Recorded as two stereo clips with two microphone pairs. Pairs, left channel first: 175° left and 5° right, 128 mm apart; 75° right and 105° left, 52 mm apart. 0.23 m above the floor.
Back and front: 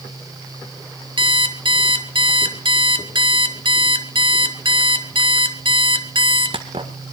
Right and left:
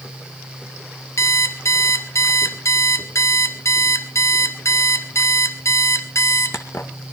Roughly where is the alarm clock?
Ahead right.